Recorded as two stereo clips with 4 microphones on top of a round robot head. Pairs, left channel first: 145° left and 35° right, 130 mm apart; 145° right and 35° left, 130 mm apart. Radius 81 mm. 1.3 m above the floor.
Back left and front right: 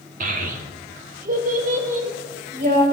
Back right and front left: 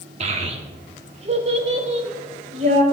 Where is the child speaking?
5° right, 1.7 m; by 2.8 s 10° right, 4 m.